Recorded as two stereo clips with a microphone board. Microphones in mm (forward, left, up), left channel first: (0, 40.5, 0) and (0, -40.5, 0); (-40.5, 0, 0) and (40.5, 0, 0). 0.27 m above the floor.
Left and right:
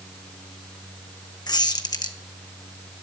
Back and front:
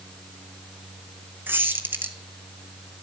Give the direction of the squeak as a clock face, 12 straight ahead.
10 o'clock.